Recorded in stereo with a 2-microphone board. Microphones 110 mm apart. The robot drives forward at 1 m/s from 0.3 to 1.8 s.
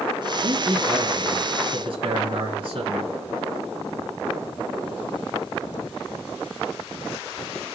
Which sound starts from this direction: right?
A man speaking, at 0.4 s.